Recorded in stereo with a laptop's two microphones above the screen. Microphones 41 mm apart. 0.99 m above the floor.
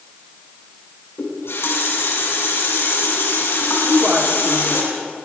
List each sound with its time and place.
1.2 s a running tap: 90° left, 7 m
3.8 s a woman speaking: 20° right (ahead or behind), 1.8 m